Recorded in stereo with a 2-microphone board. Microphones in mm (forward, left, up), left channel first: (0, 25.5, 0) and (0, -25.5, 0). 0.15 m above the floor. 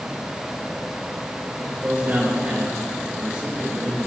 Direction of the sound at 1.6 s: 40° right (ahead or behind).